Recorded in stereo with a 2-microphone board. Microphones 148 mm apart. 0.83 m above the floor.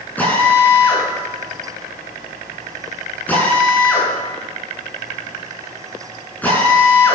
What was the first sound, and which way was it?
A drill, 10° left (ahead or behind).